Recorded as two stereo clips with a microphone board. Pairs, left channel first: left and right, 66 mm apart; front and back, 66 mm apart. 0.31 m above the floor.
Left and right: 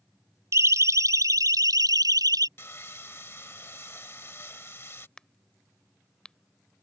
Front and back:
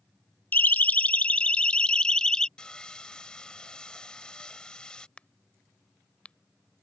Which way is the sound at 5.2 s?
35° left.